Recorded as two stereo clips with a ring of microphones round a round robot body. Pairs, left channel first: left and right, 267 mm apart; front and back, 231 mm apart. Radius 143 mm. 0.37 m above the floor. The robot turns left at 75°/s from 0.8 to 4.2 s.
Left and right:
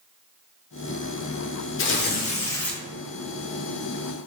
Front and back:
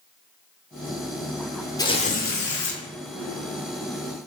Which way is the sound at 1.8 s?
70° left.